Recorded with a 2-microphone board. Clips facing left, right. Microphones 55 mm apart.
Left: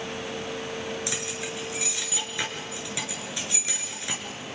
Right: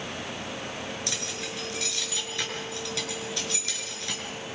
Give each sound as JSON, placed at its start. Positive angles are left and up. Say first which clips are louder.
{"t": 1.1, "sound": "keys jangling", "louder": "left 2 dB", "side_deg": 15, "distance_m": 5.5}